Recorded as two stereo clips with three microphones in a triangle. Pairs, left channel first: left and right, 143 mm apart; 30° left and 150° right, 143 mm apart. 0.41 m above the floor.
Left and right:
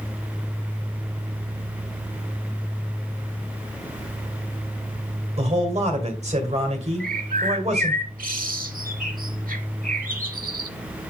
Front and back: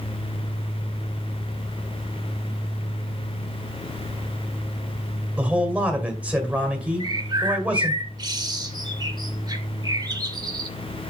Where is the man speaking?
75° right, 2.0 m.